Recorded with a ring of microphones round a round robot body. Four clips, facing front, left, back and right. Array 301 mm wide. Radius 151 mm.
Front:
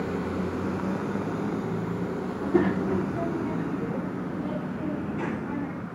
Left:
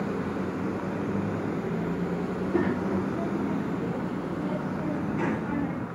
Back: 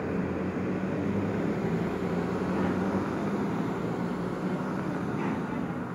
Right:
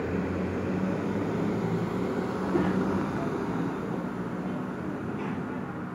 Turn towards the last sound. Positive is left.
turn(degrees=80)